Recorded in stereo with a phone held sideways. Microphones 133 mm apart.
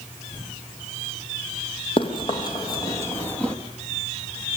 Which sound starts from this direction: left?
Running footsteps, at 2.0 s.